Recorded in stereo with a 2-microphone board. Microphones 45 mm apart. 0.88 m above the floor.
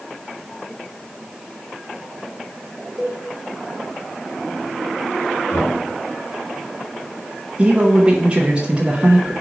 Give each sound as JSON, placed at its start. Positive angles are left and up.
{"t": 3.0, "sound": "a cowbell", "side_deg": -10, "distance_m": 1.3}
{"t": 5.5, "sound": "knocking", "side_deg": 65, "distance_m": 2.5}
{"t": 7.6, "sound": "a man speaking", "side_deg": -25, "distance_m": 1.0}